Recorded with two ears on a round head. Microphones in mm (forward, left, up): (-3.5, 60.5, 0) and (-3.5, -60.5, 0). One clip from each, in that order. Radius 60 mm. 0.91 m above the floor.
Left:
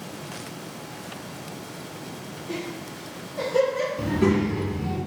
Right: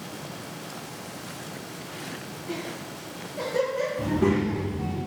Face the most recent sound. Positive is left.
turn(degrees=35)  # may be behind; listen again after turning